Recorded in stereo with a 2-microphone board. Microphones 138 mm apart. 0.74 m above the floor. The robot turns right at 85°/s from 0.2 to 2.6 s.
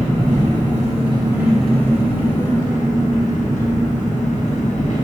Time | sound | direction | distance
0.0 | an engine running | 120° right | 0.8 m